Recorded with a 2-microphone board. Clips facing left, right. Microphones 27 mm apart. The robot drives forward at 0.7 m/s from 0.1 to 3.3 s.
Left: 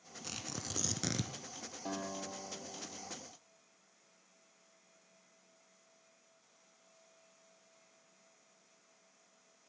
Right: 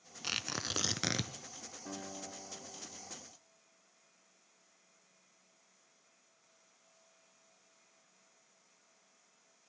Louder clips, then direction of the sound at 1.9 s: Left 5 dB; 75° left (ahead or behind).